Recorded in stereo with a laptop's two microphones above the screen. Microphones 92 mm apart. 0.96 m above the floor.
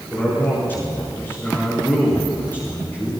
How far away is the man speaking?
About 4.5 m.